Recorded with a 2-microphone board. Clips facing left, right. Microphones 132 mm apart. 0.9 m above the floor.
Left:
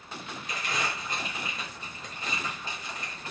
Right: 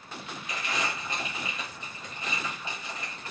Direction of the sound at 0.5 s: 35° left (ahead or behind).